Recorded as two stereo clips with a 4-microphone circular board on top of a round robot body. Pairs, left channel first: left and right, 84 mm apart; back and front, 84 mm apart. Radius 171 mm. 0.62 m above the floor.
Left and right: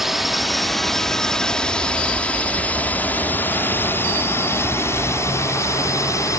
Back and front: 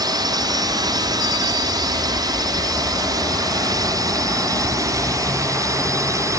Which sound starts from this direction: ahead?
A drone, at 0.0 s.